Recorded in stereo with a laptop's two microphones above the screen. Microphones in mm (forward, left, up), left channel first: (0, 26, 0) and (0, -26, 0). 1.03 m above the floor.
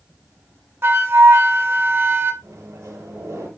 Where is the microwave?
65° right (ahead or behind), 4 m.